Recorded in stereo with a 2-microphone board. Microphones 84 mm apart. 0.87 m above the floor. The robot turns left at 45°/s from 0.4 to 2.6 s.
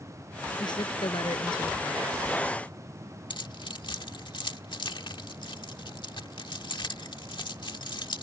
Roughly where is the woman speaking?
Behind left.